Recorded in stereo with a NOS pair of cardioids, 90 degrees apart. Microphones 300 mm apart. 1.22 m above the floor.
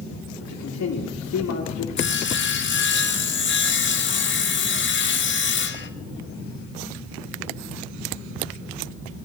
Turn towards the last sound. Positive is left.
turn(degrees=40)